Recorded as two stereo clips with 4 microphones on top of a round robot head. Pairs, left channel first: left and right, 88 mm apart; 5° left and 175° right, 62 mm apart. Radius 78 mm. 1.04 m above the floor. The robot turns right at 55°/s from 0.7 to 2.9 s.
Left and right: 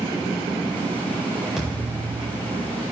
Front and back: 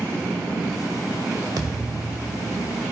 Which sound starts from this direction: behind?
A thud, at 1.6 s.